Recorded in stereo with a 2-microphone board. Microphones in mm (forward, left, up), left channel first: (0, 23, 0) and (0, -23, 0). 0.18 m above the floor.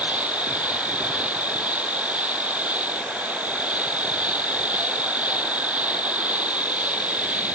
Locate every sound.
0.0 s an insect: 30° right (ahead or behind)